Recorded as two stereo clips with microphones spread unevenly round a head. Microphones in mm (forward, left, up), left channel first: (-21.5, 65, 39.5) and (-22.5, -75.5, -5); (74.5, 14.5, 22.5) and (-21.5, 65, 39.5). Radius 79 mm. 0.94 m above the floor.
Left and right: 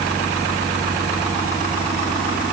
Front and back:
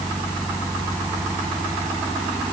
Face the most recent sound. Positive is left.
No sound to turn to.